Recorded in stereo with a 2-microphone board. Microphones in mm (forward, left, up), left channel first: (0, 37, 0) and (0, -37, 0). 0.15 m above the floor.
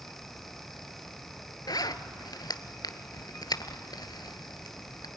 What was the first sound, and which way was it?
A zipper, 65° left (ahead or behind).